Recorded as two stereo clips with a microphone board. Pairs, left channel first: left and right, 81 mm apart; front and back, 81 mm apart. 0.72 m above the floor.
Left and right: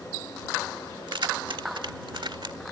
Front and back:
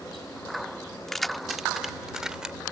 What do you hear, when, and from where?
1.1 s keys jangling: 85° right; by 2.6 s 100° right